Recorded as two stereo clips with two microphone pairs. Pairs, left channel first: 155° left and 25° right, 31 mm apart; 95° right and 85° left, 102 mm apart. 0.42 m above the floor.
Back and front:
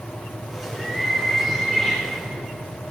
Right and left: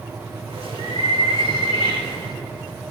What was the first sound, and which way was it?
A bird, 50° left.